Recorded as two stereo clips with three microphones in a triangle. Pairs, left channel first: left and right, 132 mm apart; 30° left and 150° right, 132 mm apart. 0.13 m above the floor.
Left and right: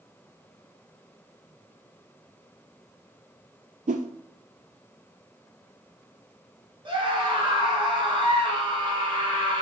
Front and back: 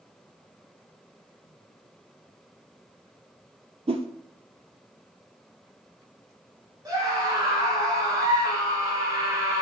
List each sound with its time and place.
3.9 s a whoosh: 105° right, 0.5 m
6.8 s a scream: 105° right, 1.8 m